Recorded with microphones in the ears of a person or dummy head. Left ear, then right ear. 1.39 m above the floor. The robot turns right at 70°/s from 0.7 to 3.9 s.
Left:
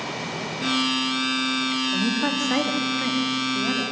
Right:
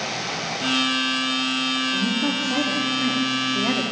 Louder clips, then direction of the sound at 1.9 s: Right 1 dB; 75° left.